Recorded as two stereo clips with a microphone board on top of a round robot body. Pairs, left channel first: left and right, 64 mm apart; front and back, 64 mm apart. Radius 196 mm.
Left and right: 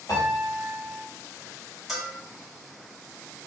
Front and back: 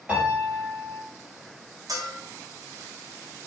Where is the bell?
Straight behind, 1.3 m.